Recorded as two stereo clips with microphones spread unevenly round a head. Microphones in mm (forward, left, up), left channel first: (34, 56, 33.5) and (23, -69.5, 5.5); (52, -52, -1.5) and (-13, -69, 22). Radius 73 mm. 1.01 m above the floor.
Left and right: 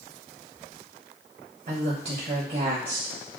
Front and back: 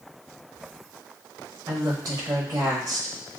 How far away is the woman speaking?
About 0.9 m.